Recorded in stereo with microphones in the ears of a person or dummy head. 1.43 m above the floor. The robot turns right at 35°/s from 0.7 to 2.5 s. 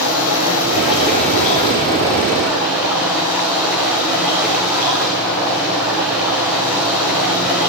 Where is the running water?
120° left, 7 m; by 7.7 s 175° right, 7 m.